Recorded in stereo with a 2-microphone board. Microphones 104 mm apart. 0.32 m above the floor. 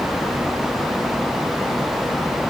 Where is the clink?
No clink in this recording.